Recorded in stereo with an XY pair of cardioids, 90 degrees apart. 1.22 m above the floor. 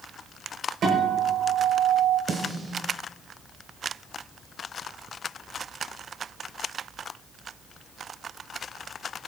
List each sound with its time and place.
0.8 s a guitar: 65° right, 5 m
2.3 s a snare drum: 45° right, 2.5 m